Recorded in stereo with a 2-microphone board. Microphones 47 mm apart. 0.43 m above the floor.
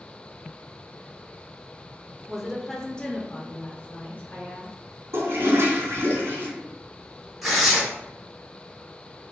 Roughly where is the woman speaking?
Centre.